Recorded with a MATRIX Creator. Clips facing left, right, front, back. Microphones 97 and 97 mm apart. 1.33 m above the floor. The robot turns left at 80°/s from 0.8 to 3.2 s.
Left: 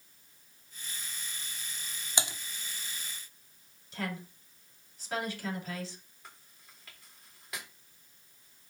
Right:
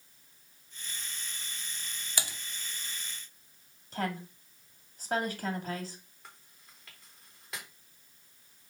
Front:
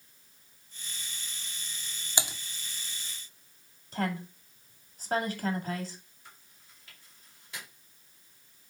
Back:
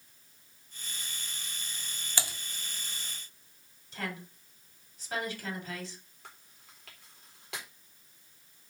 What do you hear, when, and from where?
2.2 s typing on a keyboard: 55° left, 0.9 m; by 2.4 s 40° left, 0.9 m
3.9 s a woman speaking: 40° right, 2.5 m
6.2 s chewing: straight behind, 3.5 m